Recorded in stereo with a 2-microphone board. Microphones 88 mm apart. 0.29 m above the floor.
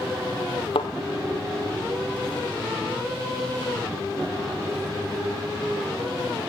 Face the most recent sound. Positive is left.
turn(degrees=75)  # may be behind; listen again after turning